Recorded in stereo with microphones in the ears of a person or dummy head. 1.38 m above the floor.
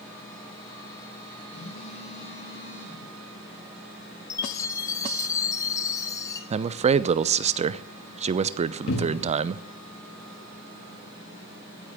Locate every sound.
1.5 s a phone buzzing: 60° left (ahead or behind), 6.5 m
4.3 s a chime: 20° left (ahead or behind), 1.2 m
6.5 s a man speaking: 40° right (ahead or behind), 0.6 m
8.9 s a cupboard door: 75° left (ahead or behind), 1.7 m